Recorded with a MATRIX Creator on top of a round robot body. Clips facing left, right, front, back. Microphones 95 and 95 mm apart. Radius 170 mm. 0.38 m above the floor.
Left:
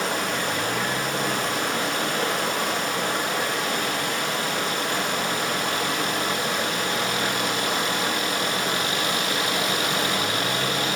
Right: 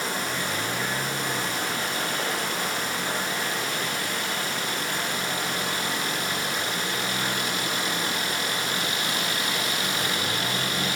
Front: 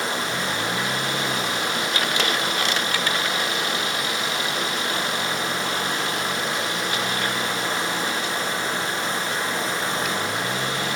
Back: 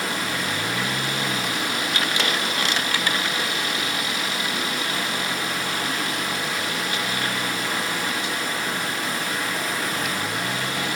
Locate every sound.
0.0 s running water: 65° left, 1.4 m